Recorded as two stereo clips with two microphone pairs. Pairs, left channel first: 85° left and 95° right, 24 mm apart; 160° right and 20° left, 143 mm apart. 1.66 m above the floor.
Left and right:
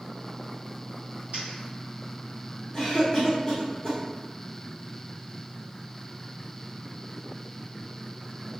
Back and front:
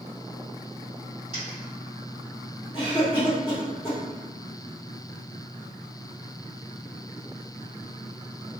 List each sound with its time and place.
1.3 s a dropped coin: 125° right, 2.0 m
2.7 s a cough: 155° left, 1.1 m